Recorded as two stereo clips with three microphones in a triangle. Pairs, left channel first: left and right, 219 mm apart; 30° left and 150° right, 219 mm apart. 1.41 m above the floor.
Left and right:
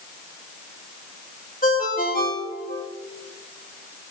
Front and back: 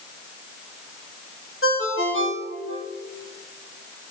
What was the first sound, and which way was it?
A ringtone, 45° left.